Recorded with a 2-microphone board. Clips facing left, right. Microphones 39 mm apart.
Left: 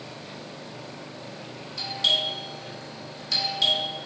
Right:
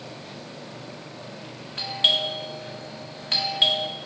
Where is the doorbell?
40° right (ahead or behind), 1.4 m.